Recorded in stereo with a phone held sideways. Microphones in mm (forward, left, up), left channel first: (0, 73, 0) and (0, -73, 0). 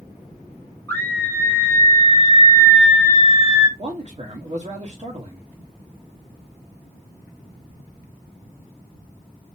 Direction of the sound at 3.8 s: 45° right (ahead or behind).